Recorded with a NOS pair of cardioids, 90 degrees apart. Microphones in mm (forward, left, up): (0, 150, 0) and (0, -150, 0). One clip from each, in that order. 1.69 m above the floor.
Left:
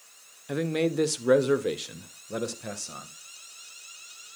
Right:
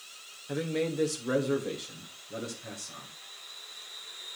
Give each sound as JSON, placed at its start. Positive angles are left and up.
{"t": 0.5, "sound": "a man speaking", "azimuth_deg": 30, "distance_m": 1.2}